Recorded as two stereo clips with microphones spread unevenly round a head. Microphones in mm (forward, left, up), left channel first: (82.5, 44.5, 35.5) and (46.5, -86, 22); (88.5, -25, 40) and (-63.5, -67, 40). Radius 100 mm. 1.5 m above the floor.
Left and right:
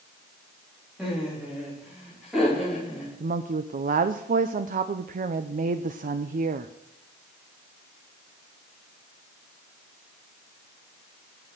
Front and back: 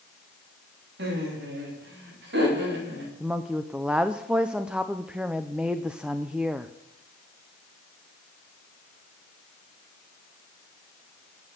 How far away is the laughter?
About 3.5 m.